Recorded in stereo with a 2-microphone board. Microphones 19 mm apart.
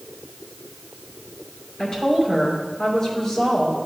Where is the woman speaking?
40° left (ahead or behind), 3.5 m.